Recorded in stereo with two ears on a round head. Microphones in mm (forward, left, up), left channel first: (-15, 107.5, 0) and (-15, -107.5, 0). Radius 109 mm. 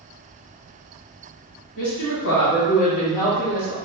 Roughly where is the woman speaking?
Left.